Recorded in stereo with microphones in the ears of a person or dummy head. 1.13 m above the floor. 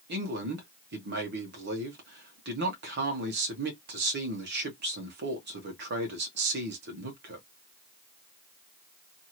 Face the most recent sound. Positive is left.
turn(degrees=-50)  # may be behind; listen again after turning